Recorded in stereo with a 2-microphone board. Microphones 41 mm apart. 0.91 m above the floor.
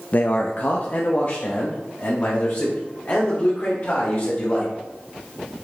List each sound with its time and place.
0.1 s a man speaking: 40° left (ahead or behind), 0.5 m